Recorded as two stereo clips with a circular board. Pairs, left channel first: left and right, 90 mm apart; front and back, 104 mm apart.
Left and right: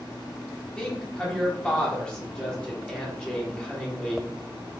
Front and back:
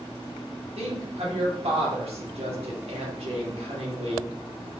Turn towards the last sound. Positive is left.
turn(degrees=170)